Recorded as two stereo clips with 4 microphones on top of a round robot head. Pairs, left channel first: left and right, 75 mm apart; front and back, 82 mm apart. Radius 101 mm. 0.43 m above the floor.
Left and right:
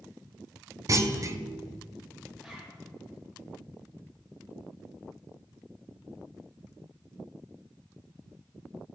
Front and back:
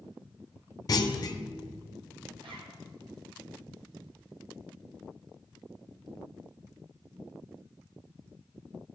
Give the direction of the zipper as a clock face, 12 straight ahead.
6 o'clock.